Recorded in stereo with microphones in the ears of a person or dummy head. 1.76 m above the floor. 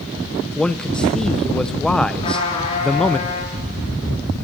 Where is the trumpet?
30° left (ahead or behind), 9 m.